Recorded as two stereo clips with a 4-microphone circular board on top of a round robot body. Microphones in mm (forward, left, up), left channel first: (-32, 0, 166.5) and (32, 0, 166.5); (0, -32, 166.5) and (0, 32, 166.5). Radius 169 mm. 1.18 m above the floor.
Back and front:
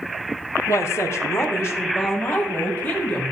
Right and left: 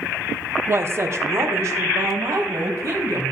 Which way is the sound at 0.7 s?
140° left.